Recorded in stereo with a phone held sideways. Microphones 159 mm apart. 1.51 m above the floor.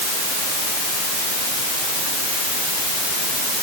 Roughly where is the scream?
I don't hear a scream.